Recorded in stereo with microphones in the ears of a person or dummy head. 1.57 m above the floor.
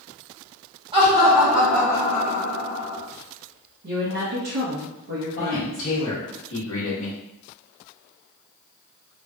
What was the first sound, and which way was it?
Laughter, 35° right (ahead or behind).